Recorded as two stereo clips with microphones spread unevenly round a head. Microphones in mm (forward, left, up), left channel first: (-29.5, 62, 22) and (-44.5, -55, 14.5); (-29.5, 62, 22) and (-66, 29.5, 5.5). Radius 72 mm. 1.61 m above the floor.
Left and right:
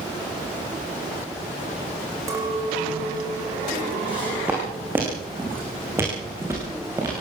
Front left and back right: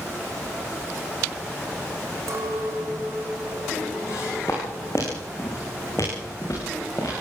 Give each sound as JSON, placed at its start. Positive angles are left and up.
{"t": 2.3, "sound": "a clink", "azimuth_deg": -160, "distance_m": 4.5}
{"t": 4.1, "sound": "footsteps", "azimuth_deg": -15, "distance_m": 6.0}